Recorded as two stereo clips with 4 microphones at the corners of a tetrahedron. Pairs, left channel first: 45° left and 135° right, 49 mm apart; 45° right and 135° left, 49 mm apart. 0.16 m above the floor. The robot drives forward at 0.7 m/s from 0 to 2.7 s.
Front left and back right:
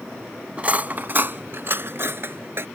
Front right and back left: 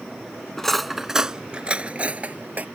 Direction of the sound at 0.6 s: 115° right.